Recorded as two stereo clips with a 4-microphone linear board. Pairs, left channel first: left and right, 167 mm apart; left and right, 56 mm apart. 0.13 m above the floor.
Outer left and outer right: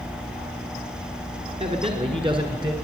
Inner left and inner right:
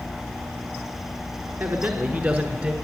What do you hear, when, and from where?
1.6 s a man speaking: 40° right (ahead or behind), 1.5 m; by 2.7 s 25° right (ahead or behind), 1.3 m